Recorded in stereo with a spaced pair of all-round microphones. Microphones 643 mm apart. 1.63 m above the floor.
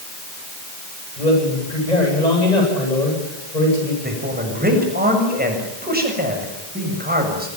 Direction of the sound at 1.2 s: 85° left.